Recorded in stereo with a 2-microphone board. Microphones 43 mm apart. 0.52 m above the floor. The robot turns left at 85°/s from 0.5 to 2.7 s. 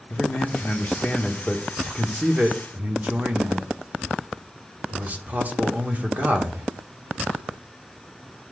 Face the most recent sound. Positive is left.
turn(degrees=-80)